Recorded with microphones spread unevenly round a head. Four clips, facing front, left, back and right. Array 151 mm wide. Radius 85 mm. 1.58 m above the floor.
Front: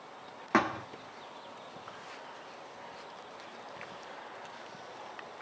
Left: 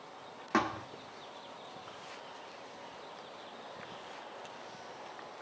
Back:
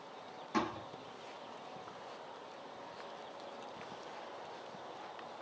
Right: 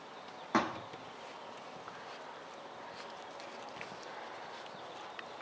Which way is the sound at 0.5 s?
5° left.